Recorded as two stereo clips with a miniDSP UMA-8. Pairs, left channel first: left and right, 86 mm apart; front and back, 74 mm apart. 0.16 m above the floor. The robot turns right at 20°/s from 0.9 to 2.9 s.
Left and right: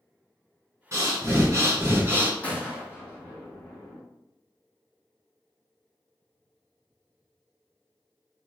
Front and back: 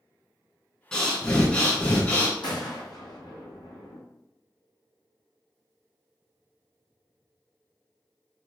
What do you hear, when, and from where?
0.9 s breathing: 75° right, 1.1 m; by 2.3 s 50° right, 1.1 m
2.4 s a gunshot: 15° left, 1.1 m; by 4.0 s 25° left, 1.1 m